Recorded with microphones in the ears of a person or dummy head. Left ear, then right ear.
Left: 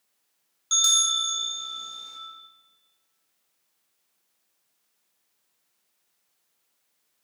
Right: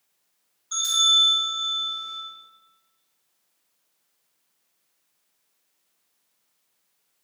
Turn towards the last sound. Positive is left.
turn(degrees=75)  # may be behind; listen again after turning